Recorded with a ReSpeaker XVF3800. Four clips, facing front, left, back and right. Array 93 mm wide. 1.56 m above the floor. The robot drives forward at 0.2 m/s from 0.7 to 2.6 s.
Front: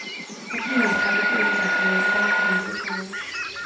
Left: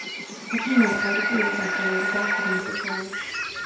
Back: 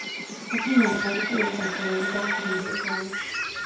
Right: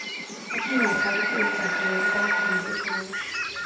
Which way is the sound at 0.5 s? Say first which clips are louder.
Left 3 dB, even; 110° left.